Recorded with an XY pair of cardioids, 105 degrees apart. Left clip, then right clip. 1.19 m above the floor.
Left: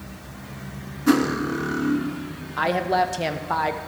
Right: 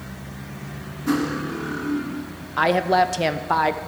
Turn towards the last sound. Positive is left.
turn(degrees=-20)